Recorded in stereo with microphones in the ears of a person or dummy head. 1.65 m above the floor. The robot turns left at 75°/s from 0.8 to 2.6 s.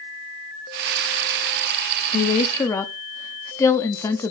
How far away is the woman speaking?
About 0.8 m.